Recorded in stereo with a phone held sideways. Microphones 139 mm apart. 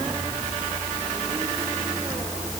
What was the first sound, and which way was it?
Only background noise.